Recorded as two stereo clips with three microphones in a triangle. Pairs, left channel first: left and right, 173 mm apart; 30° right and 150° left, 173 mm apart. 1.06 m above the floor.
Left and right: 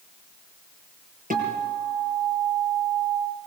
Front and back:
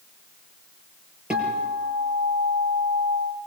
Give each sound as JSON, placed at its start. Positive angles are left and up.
{"t": 1.3, "sound": "a guitar", "azimuth_deg": -125, "distance_m": 6.0}